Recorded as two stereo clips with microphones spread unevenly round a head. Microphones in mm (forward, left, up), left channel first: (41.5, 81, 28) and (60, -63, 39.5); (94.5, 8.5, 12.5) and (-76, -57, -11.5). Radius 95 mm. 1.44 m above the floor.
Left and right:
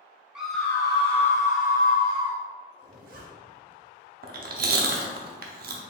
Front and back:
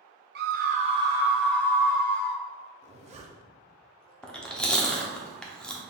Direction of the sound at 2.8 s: 110° right.